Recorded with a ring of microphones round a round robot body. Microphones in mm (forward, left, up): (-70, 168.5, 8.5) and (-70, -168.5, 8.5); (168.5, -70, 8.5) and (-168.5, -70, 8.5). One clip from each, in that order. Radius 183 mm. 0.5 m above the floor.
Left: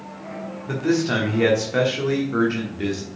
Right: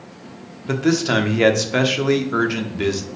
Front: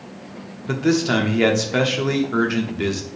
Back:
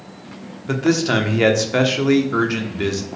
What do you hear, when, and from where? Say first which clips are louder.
0.7 s a man speaking: right 3 dB, back 1 dB; 95° right, 1.1 m